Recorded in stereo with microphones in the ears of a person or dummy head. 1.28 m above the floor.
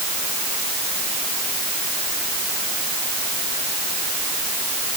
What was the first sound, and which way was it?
Only background noise.